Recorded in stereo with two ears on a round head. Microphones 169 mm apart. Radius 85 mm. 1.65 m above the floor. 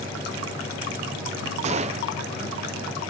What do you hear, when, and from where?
1.6 s a gunshot: 40° right (ahead or behind)